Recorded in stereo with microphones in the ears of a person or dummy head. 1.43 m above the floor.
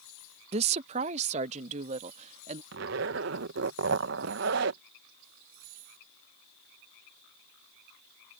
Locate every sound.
0.5 s a woman speaking: 35° right (ahead or behind); by 2.6 s 40° right (ahead or behind)
2.7 s a zipper: 70° right (ahead or behind)